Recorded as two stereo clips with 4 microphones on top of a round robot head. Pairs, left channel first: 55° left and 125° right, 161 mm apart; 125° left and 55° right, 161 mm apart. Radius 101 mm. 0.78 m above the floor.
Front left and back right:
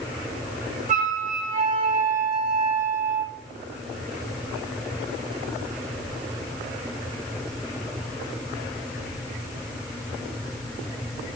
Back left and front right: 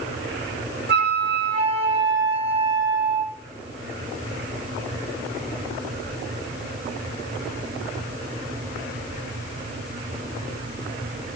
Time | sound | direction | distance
0.9 | a flute | 85° right | 1.3 m